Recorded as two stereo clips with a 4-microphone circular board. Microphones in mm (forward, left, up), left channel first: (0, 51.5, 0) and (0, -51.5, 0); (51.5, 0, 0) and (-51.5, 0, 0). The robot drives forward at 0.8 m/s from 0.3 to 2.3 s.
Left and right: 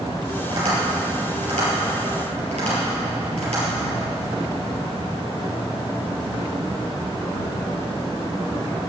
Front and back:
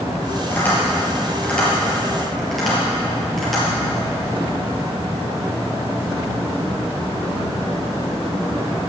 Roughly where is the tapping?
Right.